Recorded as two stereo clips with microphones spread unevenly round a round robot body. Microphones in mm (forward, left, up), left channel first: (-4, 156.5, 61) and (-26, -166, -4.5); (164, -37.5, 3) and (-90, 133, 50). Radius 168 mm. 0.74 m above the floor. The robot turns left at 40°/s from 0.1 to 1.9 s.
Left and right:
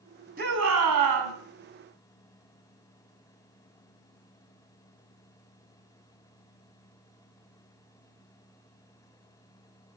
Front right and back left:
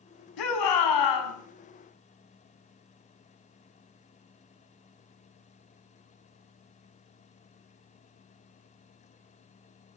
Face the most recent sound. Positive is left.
turn(degrees=-90)